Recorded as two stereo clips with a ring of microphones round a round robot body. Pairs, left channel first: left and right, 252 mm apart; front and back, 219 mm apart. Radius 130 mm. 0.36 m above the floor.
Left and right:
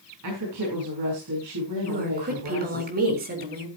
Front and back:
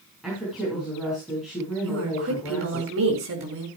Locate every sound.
0.2 s a woman speaking: 90° right, 5.5 m
1.8 s a woman speaking: 145° right, 4 m